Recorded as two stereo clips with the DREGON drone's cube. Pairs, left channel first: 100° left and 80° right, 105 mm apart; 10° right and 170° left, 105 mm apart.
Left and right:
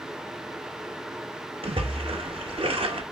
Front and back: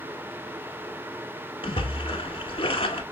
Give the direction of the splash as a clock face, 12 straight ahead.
2 o'clock.